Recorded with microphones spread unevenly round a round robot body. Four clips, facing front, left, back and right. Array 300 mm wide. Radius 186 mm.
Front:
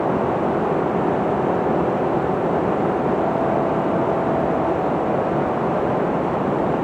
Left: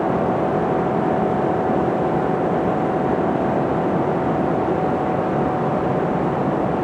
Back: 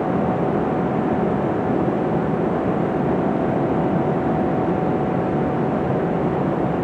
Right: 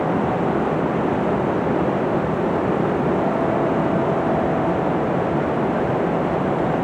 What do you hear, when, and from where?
Only background noise.